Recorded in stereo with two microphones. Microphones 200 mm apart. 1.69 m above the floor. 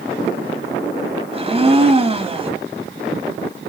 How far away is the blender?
About 3.5 m.